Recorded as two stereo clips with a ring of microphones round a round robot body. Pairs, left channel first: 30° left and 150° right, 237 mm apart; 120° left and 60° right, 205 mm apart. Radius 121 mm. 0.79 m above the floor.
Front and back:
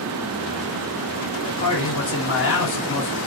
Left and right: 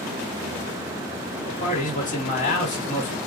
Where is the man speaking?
65° left, 1.5 m.